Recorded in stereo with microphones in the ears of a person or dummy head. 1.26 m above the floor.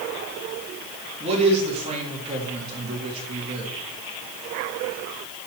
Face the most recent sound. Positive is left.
turn(degrees=-35)  # may be behind; listen again after turning